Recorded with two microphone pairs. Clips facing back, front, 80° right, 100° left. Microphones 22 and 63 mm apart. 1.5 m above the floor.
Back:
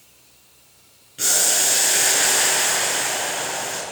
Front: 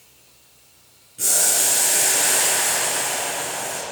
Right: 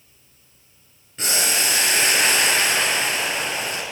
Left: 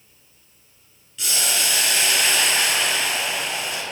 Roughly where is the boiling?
Behind right.